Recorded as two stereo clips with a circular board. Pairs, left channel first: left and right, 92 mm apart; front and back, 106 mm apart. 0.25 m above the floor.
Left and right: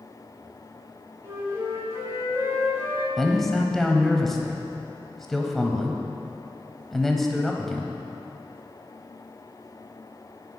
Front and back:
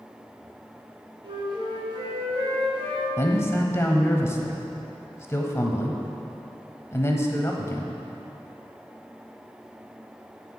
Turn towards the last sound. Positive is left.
turn(degrees=10)